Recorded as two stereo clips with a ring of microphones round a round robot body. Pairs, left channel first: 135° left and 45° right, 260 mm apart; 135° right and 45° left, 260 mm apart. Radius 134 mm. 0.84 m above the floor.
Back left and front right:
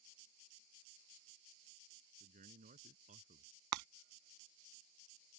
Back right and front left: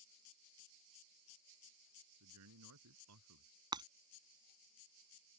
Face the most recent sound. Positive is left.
turn(degrees=-30)